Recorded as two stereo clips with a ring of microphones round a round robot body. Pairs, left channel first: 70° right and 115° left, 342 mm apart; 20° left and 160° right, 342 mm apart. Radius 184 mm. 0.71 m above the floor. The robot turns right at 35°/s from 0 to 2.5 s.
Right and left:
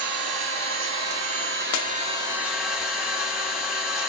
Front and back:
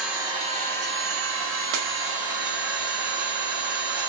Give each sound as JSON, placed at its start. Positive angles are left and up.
{"t": 0.0, "sound": "an engine running", "azimuth_deg": 115, "distance_m": 1.7}
{"t": 1.7, "sound": "breaking glass", "azimuth_deg": -115, "distance_m": 0.6}